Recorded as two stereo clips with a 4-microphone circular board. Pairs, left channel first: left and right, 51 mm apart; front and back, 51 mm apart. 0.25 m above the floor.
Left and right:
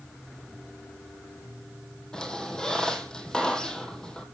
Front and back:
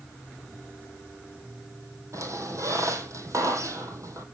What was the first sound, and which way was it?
A squeak, 165° left.